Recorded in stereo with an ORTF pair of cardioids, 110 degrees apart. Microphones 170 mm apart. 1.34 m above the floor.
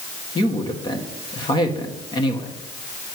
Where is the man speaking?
30° left, 1.7 m.